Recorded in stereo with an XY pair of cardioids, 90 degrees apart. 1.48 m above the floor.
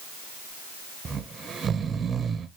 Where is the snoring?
50° right, 0.6 m.